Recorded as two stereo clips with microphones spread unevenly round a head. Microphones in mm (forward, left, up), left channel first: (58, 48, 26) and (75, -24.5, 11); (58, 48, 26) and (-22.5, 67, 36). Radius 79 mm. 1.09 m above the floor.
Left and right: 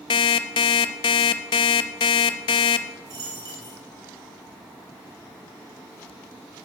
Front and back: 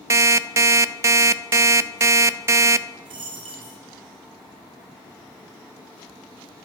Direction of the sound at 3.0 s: 140° right.